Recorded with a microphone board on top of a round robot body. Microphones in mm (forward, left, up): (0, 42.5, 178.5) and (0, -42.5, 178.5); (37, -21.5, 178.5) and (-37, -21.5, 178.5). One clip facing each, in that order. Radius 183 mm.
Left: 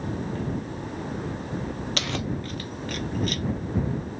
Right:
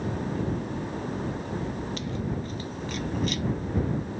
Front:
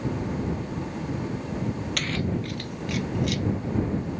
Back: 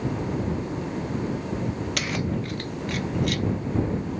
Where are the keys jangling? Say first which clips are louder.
Left 2 dB, back 1 dB; 95° left; by 3.5 s 135° left.